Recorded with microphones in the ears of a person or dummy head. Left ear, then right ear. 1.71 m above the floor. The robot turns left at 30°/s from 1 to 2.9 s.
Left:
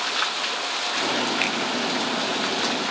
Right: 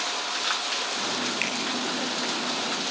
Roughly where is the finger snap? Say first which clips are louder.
Left 4 dB; centre.